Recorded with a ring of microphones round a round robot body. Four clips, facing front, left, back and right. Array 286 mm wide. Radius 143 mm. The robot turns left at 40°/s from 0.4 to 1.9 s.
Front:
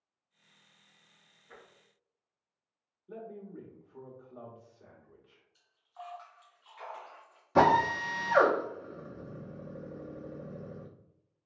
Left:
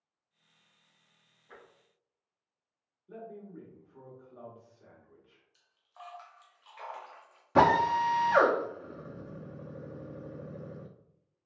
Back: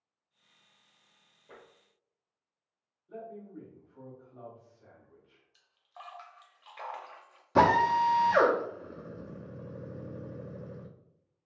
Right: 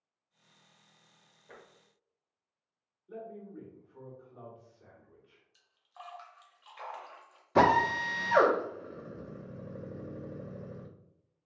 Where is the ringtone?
I don't hear a ringtone.